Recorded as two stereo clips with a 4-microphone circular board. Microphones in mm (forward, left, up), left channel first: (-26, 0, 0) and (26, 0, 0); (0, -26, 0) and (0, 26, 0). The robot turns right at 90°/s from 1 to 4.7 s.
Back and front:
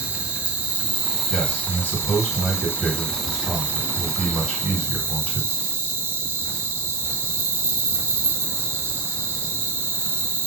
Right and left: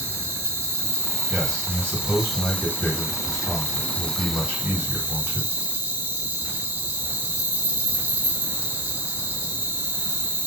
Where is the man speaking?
155° left, 2 m; by 5.5 s 100° left, 2 m.